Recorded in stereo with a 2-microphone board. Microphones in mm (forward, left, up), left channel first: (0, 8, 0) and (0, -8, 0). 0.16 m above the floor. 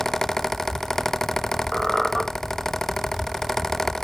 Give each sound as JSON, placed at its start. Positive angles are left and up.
{"t": 1.7, "sound": "a squeak", "side_deg": 0, "distance_m": 2.0}